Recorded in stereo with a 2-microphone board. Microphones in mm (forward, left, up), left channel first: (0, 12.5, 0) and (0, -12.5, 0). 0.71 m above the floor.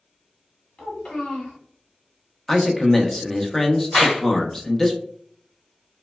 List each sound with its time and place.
0.8 s a child speaking: 40° left (ahead or behind), 1.5 m
2.5 s a man speaking: 10° left (ahead or behind), 0.5 m
3.9 s a clap: 35° left (ahead or behind), 1.4 m